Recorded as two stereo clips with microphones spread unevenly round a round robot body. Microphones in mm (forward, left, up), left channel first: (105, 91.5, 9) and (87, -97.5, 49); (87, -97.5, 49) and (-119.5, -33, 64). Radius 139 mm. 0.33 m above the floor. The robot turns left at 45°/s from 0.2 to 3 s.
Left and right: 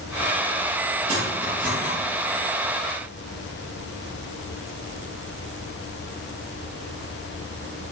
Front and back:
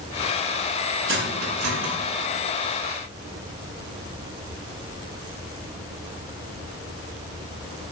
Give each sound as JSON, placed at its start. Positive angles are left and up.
{"t": 1.1, "sound": "cutlery clinking", "azimuth_deg": -170, "distance_m": 3.0}